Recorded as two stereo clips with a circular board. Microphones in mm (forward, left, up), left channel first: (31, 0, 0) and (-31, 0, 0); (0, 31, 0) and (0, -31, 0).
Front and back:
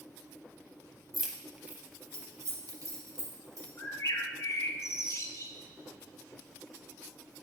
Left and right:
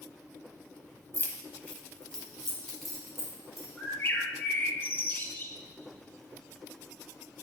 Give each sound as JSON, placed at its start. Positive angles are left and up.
{"t": 1.1, "sound": "keys jangling", "azimuth_deg": 95, "distance_m": 0.8}
{"t": 3.8, "sound": "a bird", "azimuth_deg": 35, "distance_m": 0.8}